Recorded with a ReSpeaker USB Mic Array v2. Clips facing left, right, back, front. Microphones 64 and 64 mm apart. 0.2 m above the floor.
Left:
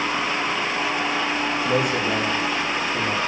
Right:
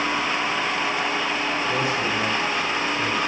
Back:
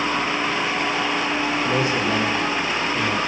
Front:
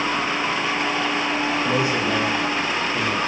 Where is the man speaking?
65° left, 6 m.